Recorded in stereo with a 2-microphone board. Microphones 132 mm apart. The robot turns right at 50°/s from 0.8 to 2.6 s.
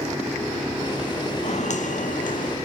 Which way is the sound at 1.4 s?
60° left (ahead or behind).